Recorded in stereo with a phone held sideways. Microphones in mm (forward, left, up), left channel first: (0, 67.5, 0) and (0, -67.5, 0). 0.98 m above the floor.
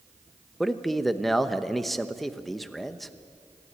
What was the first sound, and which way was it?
A man speaking, centre (ahead or behind).